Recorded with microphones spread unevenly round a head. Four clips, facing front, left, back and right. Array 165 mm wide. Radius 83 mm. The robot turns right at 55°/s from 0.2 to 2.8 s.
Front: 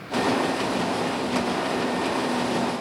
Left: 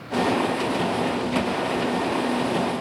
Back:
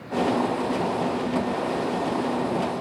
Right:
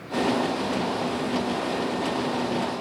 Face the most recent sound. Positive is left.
No sound to turn to.